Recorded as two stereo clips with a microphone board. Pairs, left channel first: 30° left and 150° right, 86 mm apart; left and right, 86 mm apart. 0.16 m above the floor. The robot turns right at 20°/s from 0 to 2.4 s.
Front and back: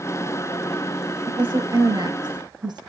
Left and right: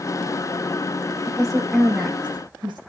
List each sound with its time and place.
1.3 s a woman speaking: 145° right, 8 m; by 2.8 s 120° right, 8 m